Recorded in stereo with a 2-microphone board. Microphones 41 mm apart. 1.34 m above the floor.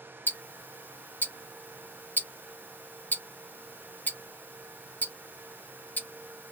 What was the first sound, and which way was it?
Ticking, 45° left (ahead or behind).